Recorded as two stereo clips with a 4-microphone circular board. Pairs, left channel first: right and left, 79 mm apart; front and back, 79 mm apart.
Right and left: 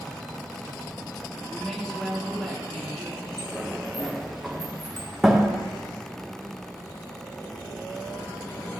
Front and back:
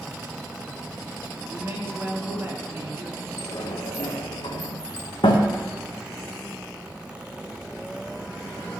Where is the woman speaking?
170° right, 1.5 m.